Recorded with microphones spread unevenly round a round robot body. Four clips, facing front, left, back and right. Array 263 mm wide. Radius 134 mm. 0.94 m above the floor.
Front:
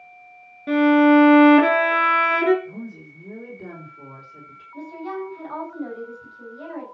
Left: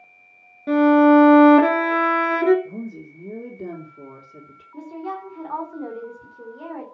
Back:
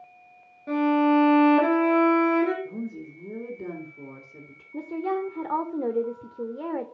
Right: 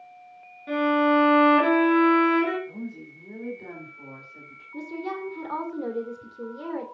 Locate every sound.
0.7 s a violin: 65° left, 2.5 m
2.6 s a woman speaking: 115° left, 3.5 m
4.7 s a woman speaking: 175° right, 3 m